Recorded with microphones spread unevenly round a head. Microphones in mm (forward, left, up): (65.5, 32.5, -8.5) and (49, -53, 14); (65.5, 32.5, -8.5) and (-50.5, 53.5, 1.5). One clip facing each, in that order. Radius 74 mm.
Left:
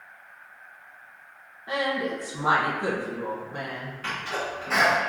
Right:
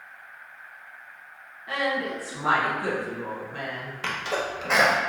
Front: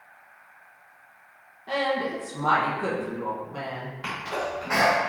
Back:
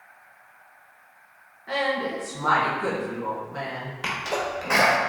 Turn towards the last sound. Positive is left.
turn(degrees=-135)